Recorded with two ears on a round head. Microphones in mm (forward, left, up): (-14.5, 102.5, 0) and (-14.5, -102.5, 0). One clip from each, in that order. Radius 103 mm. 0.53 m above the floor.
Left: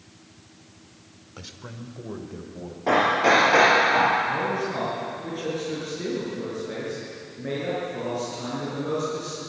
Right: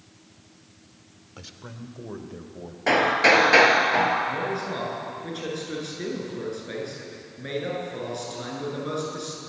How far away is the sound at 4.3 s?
About 9.5 m.